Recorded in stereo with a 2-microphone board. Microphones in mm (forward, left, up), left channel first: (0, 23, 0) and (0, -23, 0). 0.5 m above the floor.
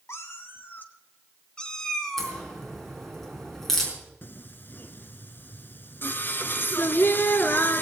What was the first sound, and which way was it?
A cat meowing, 70° left (ahead or behind).